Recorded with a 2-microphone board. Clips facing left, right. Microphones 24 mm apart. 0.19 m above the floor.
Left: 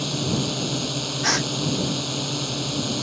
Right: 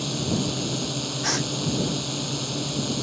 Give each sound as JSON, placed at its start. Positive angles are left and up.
{"t": 0.0, "sound": "a drone", "side_deg": 10}
{"t": 1.2, "sound": "a gasp", "side_deg": 25}